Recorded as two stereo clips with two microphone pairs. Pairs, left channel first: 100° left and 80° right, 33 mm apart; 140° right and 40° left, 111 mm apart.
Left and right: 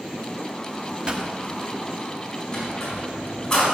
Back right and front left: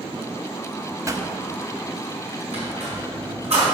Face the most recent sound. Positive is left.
turn(degrees=30)